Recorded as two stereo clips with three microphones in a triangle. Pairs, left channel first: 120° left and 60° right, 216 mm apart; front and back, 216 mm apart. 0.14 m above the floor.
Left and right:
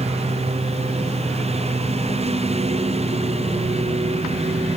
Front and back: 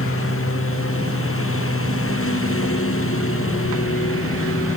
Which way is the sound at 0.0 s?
Straight ahead.